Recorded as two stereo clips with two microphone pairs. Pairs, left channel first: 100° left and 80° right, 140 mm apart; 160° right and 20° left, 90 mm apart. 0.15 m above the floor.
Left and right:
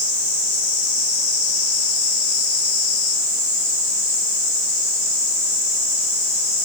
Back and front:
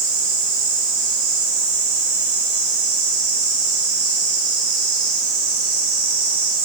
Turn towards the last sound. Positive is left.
No sound to turn to.